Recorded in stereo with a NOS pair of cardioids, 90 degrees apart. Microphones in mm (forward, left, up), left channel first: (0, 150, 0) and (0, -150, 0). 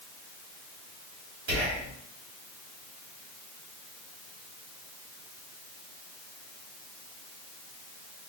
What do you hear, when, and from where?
1.5 s whispering: 65° right, 1.5 m